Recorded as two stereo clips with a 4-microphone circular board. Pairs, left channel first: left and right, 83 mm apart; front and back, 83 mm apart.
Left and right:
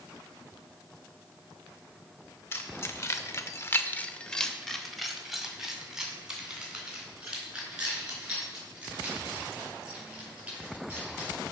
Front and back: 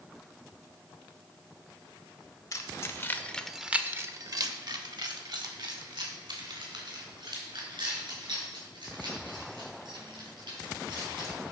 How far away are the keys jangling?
About 1.3 m.